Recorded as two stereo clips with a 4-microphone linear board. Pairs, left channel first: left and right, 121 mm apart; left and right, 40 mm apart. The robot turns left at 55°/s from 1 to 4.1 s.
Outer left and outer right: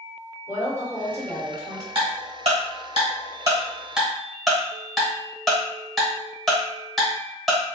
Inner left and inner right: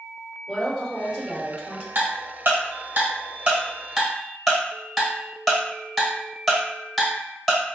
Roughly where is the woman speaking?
Centre.